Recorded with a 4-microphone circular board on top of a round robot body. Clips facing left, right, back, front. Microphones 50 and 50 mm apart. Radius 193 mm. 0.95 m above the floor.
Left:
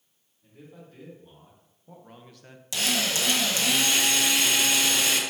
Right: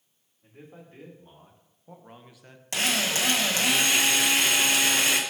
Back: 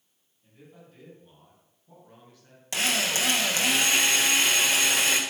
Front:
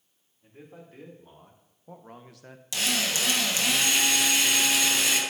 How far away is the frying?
I don't hear frying.